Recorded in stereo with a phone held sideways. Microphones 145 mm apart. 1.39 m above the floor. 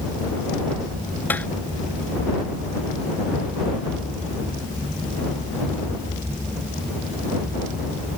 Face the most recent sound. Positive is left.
turn(degrees=10)  # may be behind; listen again after turning